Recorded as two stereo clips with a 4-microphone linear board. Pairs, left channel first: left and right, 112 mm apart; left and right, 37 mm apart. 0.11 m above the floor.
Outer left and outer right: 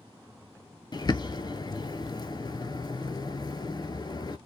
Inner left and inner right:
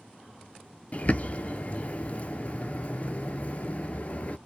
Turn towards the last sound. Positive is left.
turn(degrees=40)  # may be behind; listen again after turning